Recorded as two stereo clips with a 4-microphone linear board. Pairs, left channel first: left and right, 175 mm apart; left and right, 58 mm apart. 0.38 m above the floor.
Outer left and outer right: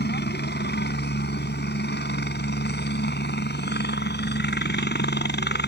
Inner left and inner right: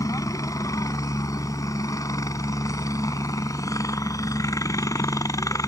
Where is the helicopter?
65° left (ahead or behind).